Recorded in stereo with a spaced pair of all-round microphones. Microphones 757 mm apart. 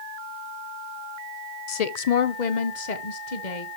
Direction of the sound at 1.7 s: 50° left (ahead or behind).